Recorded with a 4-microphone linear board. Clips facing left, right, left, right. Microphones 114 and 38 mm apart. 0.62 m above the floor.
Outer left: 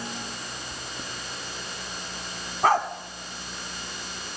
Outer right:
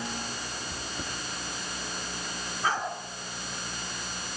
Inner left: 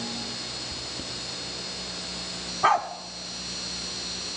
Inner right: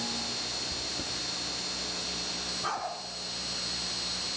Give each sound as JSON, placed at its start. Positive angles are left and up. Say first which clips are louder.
{"t": 0.7, "sound": "chewing", "louder": "outer right 1 dB, even", "side_deg": -5, "distance_m": 1.0}
{"t": 2.6, "sound": "a dog barking", "louder": "outer left 8 dB, inner left 13 dB", "side_deg": 65, "distance_m": 1.6}